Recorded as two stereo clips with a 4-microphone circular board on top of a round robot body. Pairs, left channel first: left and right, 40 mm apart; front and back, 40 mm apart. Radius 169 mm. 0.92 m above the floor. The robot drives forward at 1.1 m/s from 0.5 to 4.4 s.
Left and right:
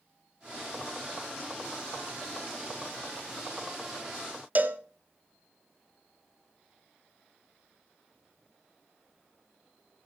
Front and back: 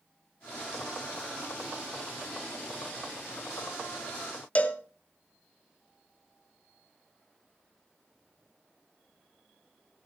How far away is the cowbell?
About 1.5 m.